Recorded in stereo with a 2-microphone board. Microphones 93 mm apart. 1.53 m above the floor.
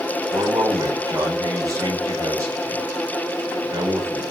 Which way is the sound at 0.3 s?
35° right (ahead or behind).